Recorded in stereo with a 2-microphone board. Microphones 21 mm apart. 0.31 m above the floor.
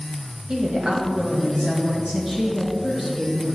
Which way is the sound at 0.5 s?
45° right (ahead or behind).